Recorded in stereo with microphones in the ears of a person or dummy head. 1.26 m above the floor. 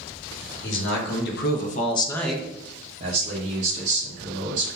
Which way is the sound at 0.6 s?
55° left (ahead or behind).